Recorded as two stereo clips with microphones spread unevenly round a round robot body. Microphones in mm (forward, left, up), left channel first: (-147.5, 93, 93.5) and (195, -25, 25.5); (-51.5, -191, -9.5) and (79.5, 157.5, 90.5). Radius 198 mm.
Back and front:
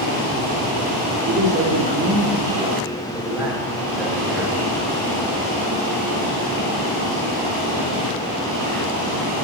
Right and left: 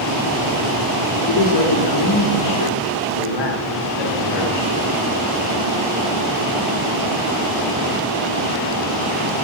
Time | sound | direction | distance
1.3 | a man speaking | 85° right | 3.5 m